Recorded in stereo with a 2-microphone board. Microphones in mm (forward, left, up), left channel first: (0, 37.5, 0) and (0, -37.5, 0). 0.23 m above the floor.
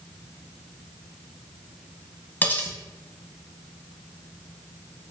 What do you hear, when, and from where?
2.4 s cutlery clinking: 25° left (ahead or behind), 0.7 m